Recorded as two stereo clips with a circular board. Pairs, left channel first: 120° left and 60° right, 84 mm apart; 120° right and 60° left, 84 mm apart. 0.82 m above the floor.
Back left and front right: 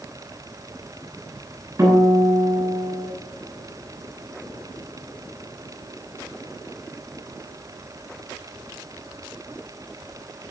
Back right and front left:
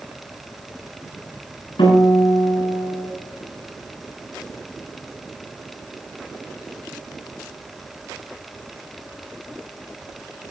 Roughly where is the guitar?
Right.